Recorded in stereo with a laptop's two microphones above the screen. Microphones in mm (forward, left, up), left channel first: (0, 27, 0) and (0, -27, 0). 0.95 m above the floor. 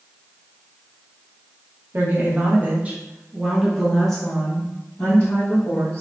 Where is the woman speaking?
50° right (ahead or behind), 1.0 m; by 6.0 s 35° left (ahead or behind), 1.6 m.